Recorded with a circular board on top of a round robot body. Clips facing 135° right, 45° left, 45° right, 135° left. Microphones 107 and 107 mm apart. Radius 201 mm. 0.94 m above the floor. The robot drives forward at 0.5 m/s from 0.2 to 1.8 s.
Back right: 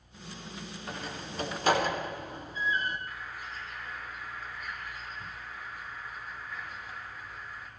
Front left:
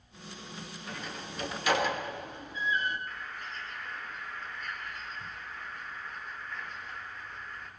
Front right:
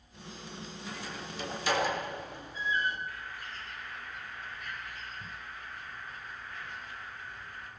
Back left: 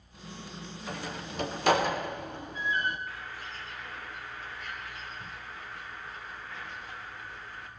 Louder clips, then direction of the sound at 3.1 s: Even, back left 1 dB; 140° left.